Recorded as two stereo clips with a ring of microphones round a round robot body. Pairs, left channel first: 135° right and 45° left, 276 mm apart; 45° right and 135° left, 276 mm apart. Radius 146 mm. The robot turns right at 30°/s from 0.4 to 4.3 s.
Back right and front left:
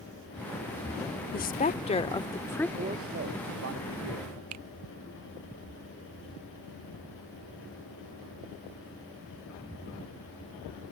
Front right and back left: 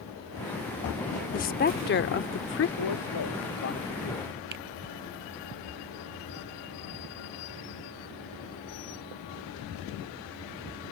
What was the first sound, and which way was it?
A woman speaking, 95° right.